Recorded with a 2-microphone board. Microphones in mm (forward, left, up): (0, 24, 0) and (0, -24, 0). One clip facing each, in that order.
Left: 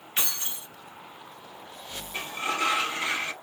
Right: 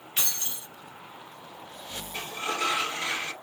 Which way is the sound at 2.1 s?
20° left (ahead or behind).